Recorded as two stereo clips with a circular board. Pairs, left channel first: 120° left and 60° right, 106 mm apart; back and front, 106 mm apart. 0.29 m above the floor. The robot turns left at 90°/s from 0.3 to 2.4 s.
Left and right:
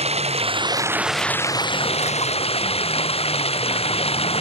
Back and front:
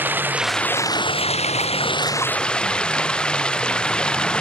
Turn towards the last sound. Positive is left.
turn(degrees=100)